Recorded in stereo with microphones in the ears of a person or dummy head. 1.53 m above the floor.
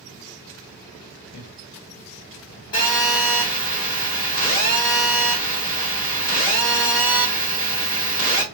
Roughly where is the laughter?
Left.